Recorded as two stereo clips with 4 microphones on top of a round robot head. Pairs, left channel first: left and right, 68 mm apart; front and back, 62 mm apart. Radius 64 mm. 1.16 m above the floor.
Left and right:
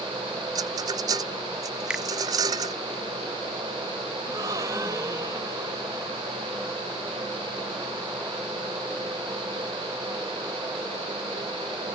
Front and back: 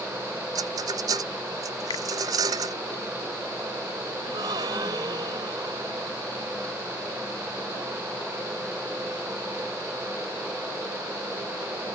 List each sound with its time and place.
0.6 s a rattle: 135° right
1.9 s a finger snap: 15° right
4.2 s a gasp: 145° right